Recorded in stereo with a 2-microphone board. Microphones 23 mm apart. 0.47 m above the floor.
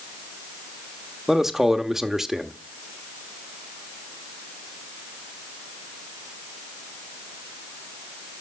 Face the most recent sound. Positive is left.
turn(degrees=-20)  # may be behind; listen again after turning